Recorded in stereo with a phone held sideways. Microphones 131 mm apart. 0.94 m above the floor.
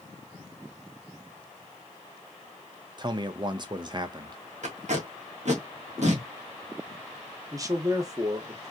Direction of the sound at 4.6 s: 65° right (ahead or behind).